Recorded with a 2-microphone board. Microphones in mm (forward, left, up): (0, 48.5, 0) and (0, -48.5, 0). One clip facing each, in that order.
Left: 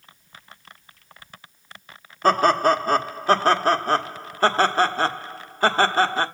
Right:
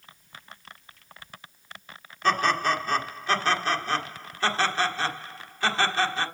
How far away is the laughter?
About 1.3 m.